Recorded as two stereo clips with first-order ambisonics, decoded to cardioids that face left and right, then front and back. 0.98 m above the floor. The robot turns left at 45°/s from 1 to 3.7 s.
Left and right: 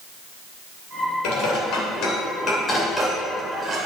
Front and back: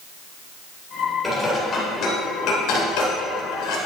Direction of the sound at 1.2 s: 85° left.